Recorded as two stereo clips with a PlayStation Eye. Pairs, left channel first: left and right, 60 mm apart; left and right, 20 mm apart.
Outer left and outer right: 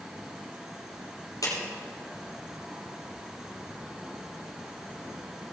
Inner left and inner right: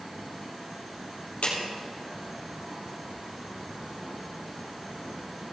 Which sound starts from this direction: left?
A clap, at 1.4 s.